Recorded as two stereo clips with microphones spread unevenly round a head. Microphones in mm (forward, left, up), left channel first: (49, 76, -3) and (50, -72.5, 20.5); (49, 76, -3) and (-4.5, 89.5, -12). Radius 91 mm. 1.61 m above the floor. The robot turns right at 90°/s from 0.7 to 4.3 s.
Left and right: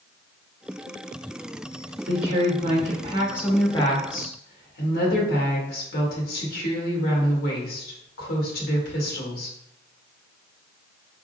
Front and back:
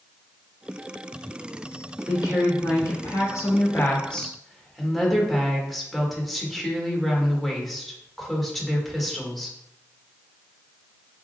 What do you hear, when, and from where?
2.1 s a woman speaking: 130° right, 1.8 m; by 9.6 s 75° left, 1.8 m